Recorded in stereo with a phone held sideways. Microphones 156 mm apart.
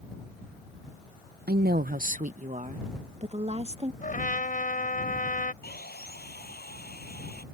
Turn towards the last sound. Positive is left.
turn(degrees=85)